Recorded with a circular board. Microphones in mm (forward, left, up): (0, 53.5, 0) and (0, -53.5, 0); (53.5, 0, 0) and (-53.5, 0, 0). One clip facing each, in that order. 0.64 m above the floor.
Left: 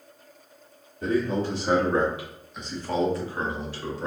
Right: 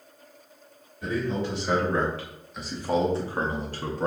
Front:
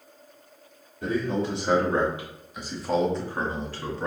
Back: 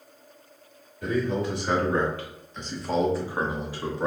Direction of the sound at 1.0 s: 55° left.